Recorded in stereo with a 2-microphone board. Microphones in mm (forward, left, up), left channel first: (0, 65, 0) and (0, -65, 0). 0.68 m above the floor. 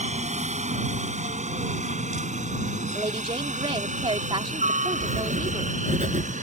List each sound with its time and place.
0.0 s a helicopter: 60° right (ahead or behind); by 6.4 s 70° right (ahead or behind)
2.9 s a woman speaking: 45° right (ahead or behind)
5.0 s writing: 70° right (ahead or behind)